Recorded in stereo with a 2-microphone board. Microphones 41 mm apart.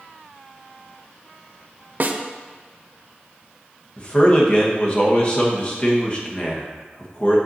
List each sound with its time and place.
2.0 s a snare drum: 50° right (ahead or behind), 0.6 m
4.0 s a man speaking: 30° left (ahead or behind), 1.5 m